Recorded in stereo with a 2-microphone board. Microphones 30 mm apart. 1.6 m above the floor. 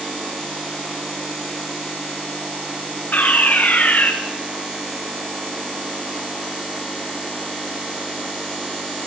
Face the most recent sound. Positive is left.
turn(degrees=65)  # may be behind; listen again after turning